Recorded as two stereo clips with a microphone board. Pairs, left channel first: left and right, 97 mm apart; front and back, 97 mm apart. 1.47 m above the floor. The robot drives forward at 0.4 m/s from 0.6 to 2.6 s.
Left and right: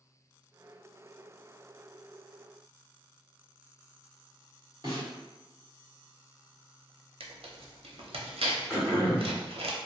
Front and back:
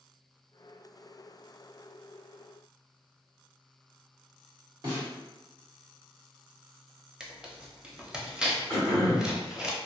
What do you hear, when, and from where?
4.8 s a snare drum: 130° right, 1.2 m
7.2 s tearing paper: 100° right, 0.5 m
8.7 s throat clearing: 160° right, 1.1 m